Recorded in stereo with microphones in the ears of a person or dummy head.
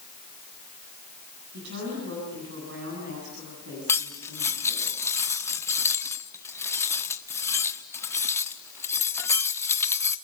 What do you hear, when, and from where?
1.5 s a woman speaking: 65° right (ahead or behind), 8.5 m
3.9 s cutlery clinking: 15° left (ahead or behind), 0.9 m